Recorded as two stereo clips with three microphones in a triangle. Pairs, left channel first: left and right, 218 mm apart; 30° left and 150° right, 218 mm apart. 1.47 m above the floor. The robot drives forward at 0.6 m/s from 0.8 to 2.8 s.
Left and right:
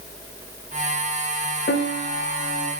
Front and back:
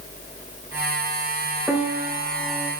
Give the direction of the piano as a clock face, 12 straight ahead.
8 o'clock.